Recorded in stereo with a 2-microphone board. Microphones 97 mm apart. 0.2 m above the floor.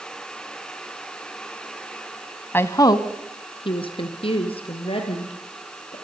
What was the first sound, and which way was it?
A woman speaking, 20° left (ahead or behind).